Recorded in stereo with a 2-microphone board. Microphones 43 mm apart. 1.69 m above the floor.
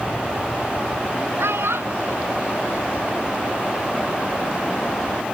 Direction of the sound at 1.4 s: 85° right.